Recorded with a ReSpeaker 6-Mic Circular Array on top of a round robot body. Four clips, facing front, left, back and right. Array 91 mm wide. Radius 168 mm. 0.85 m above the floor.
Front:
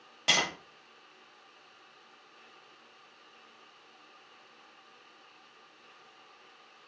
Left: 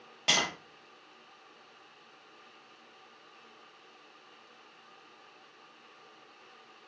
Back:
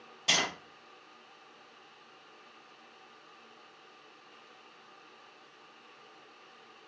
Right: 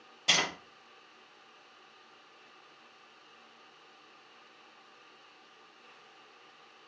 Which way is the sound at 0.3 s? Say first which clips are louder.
Left 1 dB, front 2 dB; 45° left.